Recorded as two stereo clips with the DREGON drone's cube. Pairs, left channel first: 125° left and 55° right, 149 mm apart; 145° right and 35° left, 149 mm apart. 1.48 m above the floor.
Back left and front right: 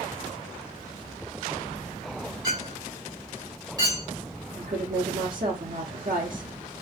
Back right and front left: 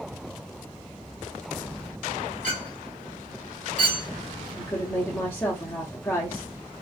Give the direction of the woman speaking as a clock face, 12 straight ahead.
2 o'clock.